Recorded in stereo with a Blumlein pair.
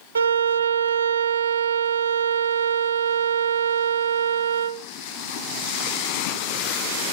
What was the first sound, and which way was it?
A violin, 70° right.